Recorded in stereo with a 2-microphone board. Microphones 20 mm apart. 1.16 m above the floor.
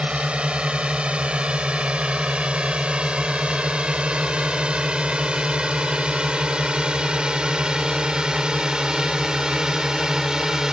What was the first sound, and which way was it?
A drone, 80° right.